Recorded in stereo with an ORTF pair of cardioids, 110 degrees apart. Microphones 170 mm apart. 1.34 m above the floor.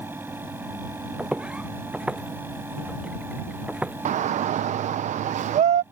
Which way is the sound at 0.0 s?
10° right.